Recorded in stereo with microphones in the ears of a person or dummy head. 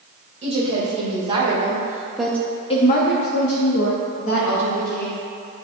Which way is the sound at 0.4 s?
40° right (ahead or behind).